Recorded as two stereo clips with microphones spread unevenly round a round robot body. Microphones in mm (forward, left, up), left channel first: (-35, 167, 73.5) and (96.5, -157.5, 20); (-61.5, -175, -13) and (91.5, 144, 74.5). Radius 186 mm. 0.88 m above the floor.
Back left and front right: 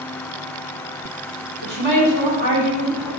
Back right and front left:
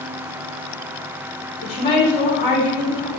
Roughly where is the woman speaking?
Right.